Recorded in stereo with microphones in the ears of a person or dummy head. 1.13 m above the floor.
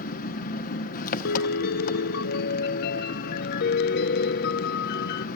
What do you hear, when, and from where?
0.0 s an engine running: 45° left (ahead or behind), 1.1 m
1.2 s a piano: 50° left (ahead or behind), 0.5 m